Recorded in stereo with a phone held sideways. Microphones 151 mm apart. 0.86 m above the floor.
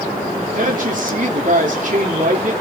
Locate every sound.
0.6 s a woman speaking: 60° right (ahead or behind), 1.8 m